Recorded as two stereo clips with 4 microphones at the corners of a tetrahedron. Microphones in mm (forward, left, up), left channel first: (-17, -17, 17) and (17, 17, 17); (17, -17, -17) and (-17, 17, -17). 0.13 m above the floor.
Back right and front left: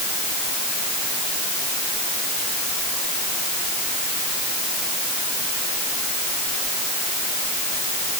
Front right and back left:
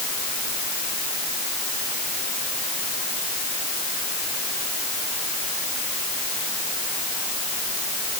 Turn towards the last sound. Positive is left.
No sound to turn to.